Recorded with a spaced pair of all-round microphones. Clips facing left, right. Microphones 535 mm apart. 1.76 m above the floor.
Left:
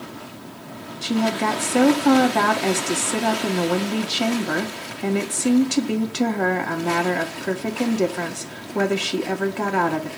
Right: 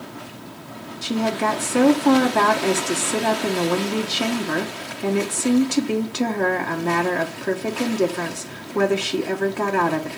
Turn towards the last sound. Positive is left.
turn(degrees=5)  # may be behind; listen again after turning